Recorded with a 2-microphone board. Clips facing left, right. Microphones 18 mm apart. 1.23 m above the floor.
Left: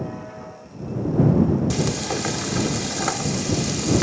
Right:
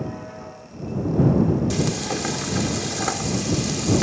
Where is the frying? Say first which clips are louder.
Even; 5° left (ahead or behind).